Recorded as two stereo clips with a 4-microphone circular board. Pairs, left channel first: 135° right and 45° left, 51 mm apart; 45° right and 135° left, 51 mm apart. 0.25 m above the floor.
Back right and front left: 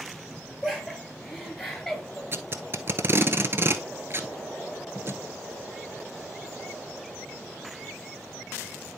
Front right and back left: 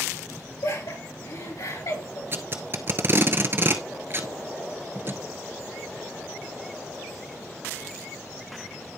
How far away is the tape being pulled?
About 0.7 m.